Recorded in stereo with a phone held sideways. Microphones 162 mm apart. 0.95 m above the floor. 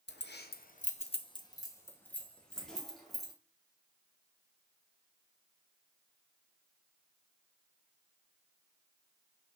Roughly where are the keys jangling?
Left.